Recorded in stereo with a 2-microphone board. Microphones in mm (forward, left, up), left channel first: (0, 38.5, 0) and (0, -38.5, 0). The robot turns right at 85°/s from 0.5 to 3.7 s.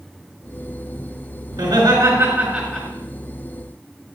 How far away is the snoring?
I don't hear snoring.